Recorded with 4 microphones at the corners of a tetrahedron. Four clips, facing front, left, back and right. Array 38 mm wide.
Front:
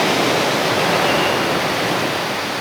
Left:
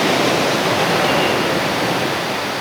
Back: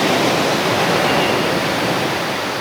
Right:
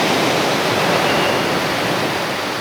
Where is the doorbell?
I don't hear a doorbell.